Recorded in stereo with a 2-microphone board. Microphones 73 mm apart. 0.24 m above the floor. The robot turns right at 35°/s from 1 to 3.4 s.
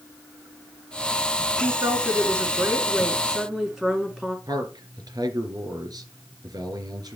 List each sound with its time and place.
1.6 s a woman speaking: 75° right, 3 m; by 4.4 s 10° right, 3 m
4.5 s a man speaking: 70° right (ahead or behind), 3 m